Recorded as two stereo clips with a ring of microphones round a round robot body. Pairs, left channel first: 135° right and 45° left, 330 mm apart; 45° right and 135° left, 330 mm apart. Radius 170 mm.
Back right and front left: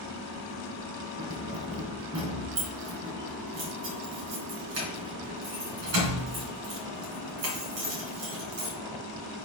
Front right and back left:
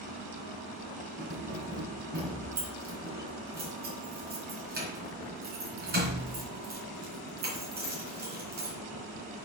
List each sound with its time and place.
1.2 s keys jangling: 70° left, 3 m